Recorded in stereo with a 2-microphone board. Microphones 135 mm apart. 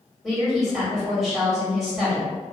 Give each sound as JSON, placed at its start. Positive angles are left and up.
{"t": 0.2, "sound": "a woman speaking", "side_deg": 0, "distance_m": 2.0}